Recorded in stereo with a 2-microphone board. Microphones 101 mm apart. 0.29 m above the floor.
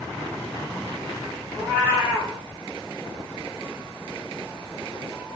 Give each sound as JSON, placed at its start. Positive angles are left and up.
{"t": 1.5, "sound": "a cat meowing", "side_deg": -25, "distance_m": 3.5}